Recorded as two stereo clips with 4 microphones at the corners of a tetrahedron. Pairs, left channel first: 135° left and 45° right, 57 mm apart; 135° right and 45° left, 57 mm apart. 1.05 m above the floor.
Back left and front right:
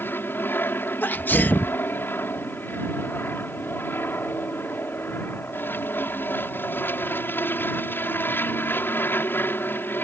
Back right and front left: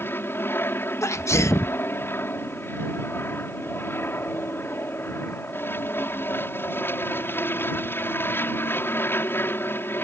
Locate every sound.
0.0 s an aircraft: straight behind
1.0 s a sneeze: 170° right